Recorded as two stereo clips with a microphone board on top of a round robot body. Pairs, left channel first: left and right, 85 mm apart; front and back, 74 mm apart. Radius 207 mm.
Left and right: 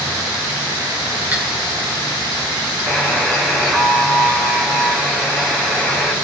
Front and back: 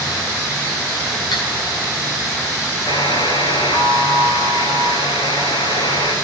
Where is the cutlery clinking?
20° right, 4.5 m.